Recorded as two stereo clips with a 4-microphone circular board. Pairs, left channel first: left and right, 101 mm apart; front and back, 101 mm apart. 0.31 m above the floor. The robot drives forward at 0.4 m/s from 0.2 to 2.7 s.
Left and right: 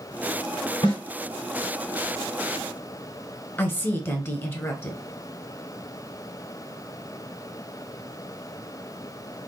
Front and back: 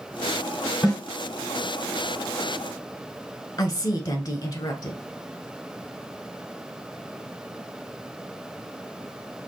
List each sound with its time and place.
0.8 s a snare drum: 45° left, 2.5 m
3.6 s a woman speaking: 30° left, 1.3 m